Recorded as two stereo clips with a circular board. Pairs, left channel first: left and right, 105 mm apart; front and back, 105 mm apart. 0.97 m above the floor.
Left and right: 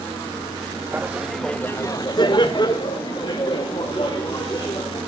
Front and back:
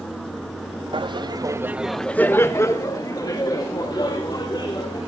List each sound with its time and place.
0.9 s laughter: 160° right, 0.9 m; by 5.0 s 45° left, 3 m